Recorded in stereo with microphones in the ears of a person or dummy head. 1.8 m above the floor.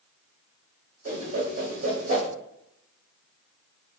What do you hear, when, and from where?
1.1 s a whoosh: 45° right (ahead or behind), 0.9 m